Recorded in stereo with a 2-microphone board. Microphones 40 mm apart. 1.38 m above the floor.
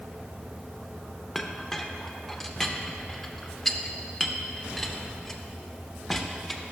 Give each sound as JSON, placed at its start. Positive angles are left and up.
{"t": 1.4, "sound": "a clink", "side_deg": 5, "distance_m": 0.6}